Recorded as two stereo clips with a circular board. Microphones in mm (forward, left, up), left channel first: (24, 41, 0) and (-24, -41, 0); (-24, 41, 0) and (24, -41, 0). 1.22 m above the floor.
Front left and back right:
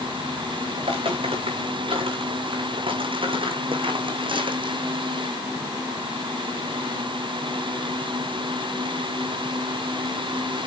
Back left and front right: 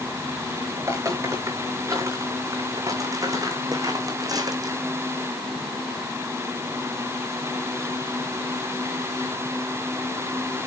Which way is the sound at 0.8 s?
115° right.